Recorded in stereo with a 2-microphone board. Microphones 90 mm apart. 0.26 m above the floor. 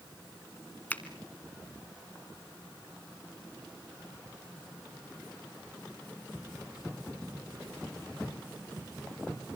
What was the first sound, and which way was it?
A finger snap, 20° left (ahead or behind).